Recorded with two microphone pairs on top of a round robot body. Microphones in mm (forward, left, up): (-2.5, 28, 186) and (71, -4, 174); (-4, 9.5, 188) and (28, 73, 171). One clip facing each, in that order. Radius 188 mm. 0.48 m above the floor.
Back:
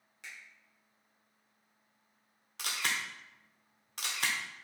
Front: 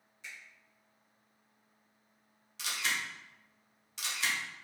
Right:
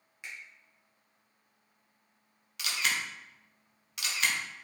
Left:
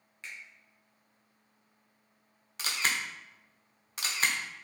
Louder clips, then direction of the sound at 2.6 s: Even, even; 115° left.